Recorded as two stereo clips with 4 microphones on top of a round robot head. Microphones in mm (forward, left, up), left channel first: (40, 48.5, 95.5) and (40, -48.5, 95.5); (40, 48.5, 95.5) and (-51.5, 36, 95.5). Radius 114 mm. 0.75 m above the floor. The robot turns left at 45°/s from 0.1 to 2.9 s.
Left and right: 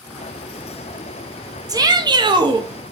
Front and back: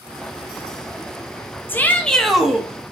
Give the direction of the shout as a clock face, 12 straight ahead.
2 o'clock.